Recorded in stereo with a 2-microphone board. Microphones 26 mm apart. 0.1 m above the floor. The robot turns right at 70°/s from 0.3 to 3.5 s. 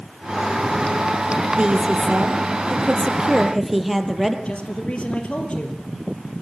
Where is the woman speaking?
140° right, 3 m; by 4.3 s 5° right, 3 m.